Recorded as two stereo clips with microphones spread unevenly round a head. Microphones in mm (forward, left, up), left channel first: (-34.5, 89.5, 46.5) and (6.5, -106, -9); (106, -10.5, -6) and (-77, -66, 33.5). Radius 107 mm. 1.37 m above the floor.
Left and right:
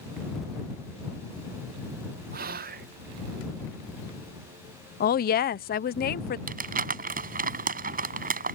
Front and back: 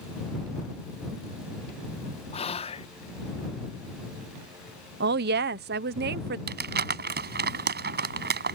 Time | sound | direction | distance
2.3 | whispering | 40° right | ?
5.0 | a woman speaking | 155° left | ?
6.5 | crumpling | 130° right | ?